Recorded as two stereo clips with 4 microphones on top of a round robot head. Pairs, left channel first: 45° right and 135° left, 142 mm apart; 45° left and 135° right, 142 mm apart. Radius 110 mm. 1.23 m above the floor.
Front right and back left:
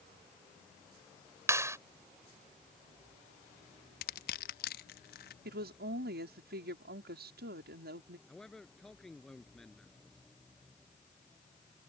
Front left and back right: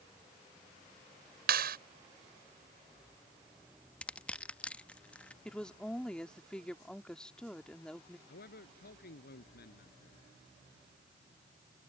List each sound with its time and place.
1.5 s a clap: 155° right
4.0 s crushing: 35° right
5.5 s a woman speaking: 130° left
8.3 s a man speaking: 40° left